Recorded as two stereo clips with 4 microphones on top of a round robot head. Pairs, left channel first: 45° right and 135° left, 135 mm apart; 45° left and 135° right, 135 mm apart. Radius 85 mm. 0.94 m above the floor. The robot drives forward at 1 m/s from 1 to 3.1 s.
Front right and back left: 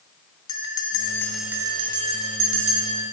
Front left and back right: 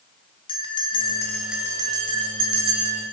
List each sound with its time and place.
0.5 s a bell: 5° left, 0.7 m; by 3.0 s straight behind, 1.7 m